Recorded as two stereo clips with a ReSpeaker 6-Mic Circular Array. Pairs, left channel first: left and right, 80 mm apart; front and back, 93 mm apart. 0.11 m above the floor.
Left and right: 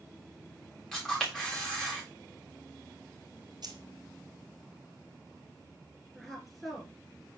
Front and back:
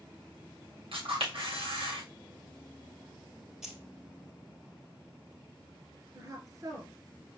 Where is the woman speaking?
175° right, 1.8 m.